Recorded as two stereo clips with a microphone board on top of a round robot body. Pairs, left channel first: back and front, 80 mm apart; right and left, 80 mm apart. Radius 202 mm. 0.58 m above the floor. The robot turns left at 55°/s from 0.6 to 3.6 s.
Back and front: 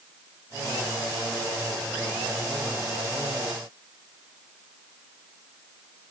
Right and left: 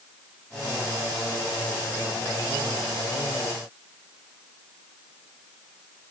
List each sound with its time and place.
Only background noise.